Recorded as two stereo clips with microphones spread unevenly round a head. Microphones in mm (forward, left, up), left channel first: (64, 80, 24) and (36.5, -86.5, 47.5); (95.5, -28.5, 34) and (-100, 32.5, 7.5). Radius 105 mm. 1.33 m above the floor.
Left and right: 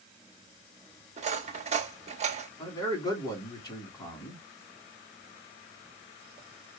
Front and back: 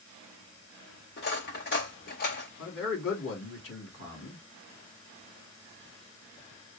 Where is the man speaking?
15° left, 3 m.